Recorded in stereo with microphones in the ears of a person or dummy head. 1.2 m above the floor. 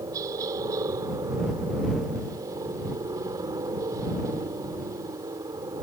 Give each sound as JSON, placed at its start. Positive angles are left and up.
{"t": 0.0, "sound": "a helicopter", "side_deg": -20}